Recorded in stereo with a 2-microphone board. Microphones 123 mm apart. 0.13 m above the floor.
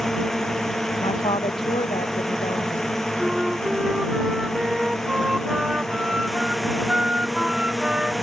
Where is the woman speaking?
45° left (ahead or behind).